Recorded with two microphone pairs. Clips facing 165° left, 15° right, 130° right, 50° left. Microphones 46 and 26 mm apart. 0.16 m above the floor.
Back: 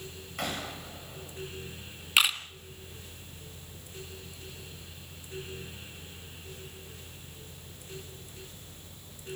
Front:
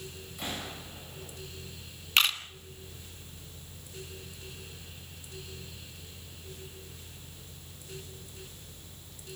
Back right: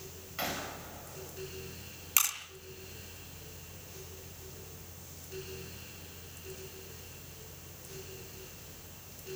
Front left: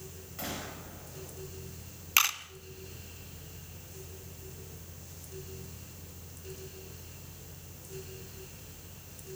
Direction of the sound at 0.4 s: Straight behind.